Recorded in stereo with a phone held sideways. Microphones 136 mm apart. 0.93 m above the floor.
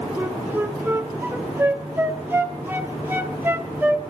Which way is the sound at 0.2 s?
15° right (ahead or behind).